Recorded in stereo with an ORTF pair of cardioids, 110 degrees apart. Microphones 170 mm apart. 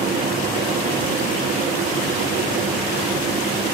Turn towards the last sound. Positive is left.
turn(degrees=-60)